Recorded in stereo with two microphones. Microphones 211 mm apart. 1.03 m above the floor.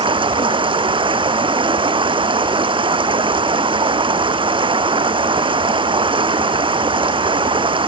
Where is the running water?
25° right (ahead or behind).